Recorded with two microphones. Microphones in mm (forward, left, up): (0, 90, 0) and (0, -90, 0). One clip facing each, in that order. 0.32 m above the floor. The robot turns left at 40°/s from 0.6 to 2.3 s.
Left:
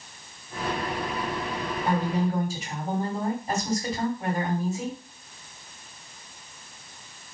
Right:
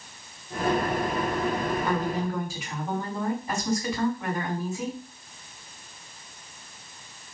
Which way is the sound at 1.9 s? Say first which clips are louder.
Left 2 dB; 40° left (ahead or behind).